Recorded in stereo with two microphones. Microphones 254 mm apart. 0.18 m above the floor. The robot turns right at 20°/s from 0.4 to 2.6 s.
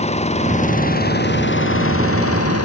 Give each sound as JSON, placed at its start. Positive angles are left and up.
{"t": 0.0, "sound": "an engine running", "azimuth_deg": 25}